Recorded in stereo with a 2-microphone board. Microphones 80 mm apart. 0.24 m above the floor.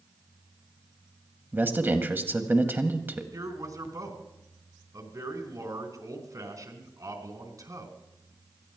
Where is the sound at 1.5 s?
25° right (ahead or behind), 1.4 m.